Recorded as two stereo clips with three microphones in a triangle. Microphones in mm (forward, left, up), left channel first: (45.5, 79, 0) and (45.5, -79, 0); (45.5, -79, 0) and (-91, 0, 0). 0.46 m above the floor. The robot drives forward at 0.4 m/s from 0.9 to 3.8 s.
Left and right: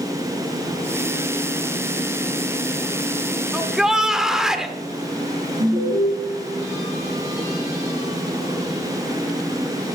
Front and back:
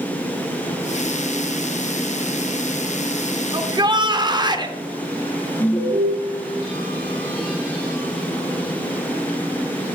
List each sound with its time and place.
3.5 s a shout: 175° right, 1.3 m
5.6 s an alarm: 85° right, 5 m